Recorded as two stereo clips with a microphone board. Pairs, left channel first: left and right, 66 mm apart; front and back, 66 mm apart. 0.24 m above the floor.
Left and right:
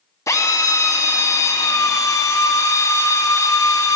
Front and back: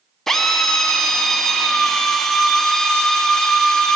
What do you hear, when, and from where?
0.3 s a drill: 85° left, 0.7 m